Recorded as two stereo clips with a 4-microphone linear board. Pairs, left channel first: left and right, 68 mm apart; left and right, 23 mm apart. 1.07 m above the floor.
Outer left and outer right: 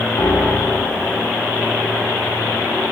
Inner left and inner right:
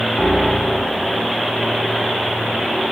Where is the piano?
65° left (ahead or behind), 2 m.